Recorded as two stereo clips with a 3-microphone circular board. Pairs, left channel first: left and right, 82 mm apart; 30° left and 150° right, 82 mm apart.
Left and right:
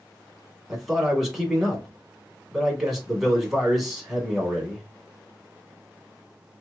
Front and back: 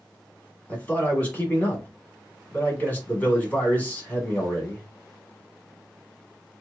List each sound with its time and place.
0.7 s a man speaking: 5° right, 1.2 m